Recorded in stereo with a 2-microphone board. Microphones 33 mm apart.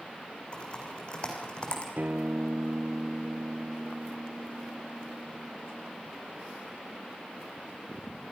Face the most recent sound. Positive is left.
turn(degrees=-60)  # may be behind; listen again after turning